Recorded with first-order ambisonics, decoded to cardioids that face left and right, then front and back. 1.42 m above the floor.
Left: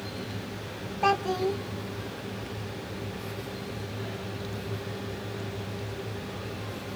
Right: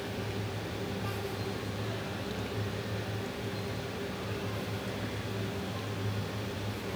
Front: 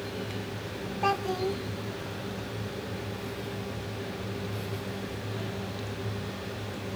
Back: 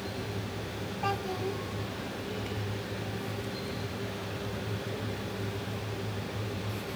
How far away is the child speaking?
About 0.6 m.